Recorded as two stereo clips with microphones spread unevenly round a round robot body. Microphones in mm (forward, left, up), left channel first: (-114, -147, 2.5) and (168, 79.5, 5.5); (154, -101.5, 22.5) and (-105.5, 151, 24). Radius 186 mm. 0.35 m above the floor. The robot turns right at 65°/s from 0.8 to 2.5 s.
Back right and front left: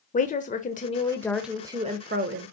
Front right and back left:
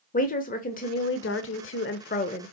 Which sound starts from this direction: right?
A woman speaking, at 0.1 s.